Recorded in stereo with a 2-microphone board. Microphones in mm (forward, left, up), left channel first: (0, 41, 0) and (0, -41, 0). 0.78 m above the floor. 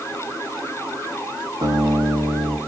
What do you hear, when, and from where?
1.6 s a guitar: 65° right (ahead or behind), 9.5 m